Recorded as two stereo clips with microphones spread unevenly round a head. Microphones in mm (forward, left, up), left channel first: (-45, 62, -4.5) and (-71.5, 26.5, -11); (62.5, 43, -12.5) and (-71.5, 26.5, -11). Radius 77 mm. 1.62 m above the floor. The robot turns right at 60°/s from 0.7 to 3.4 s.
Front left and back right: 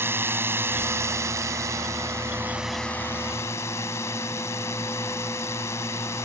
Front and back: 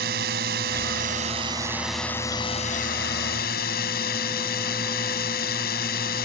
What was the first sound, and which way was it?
A drone, 155° right.